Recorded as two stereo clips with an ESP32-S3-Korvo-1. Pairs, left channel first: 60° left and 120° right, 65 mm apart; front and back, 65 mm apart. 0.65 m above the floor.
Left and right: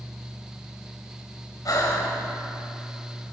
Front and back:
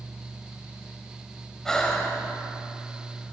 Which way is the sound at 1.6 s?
80° left.